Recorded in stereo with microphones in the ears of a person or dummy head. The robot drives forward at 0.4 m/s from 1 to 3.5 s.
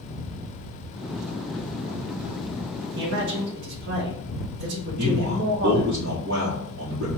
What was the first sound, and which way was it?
A man speaking, 75° right (ahead or behind).